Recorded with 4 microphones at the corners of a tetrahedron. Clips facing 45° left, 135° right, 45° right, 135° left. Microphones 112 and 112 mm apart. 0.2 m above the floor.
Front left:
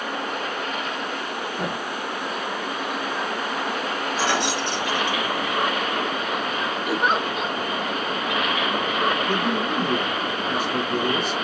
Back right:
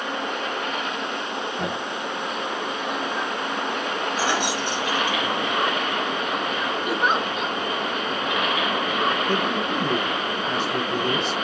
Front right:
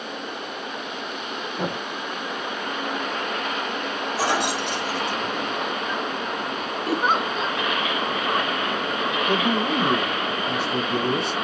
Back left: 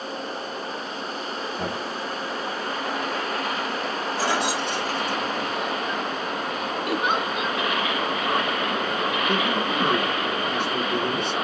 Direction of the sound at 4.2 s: 60° right.